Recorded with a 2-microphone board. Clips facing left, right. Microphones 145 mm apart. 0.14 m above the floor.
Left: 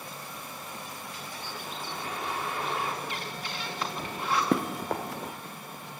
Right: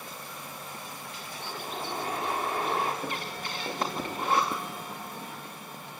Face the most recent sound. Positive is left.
turn(degrees=75)  # may be behind; listen again after turning